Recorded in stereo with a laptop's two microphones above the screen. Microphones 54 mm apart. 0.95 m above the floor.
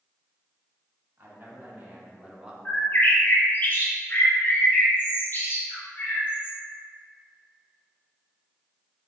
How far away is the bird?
About 0.7 m.